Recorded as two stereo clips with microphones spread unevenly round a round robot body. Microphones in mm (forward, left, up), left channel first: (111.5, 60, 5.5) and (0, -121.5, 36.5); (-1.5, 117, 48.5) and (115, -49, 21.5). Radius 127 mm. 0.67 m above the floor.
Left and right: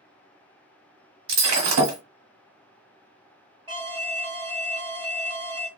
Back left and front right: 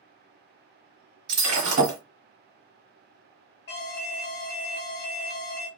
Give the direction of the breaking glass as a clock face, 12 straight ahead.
4 o'clock.